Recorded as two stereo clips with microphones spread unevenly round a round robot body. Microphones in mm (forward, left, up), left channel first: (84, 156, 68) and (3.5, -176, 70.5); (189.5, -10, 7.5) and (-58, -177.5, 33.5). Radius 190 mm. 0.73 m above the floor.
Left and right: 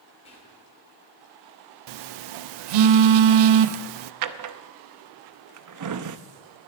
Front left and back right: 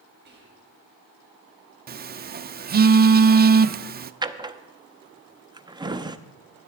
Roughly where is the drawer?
Ahead right.